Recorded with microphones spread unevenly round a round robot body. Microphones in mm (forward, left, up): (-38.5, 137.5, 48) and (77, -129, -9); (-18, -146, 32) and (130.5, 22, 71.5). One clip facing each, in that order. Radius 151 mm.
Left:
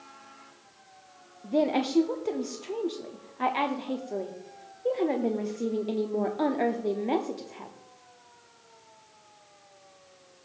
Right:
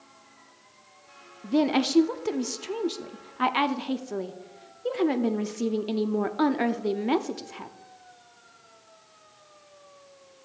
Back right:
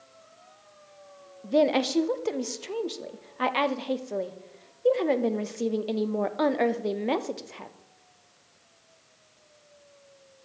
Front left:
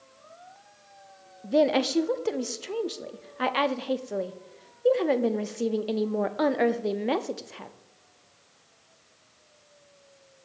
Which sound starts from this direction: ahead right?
A woman speaking, at 1.4 s.